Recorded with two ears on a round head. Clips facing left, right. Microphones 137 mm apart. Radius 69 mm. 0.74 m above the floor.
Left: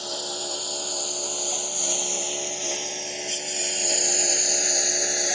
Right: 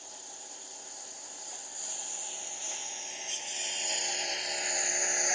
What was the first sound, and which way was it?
A lawn mower, 85° left.